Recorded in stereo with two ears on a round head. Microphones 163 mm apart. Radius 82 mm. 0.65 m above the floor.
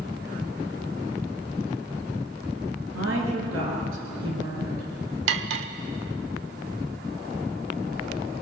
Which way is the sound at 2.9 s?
85° right.